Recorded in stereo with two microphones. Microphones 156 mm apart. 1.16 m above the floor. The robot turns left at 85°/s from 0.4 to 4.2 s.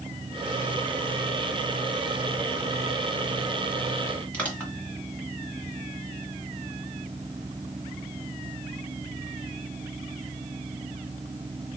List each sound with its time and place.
4.3 s crushing: 10° left (ahead or behind), 1.7 m